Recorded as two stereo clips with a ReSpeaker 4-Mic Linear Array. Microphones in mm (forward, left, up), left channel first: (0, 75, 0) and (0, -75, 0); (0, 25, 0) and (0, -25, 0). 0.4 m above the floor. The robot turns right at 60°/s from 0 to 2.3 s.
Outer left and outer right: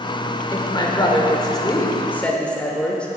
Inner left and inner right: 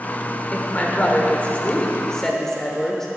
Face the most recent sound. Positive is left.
turn(degrees=10)  # may be behind; listen again after turning